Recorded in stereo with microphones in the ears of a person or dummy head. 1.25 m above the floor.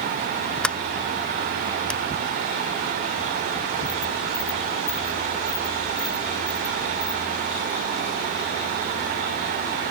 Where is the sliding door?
5° left (ahead or behind).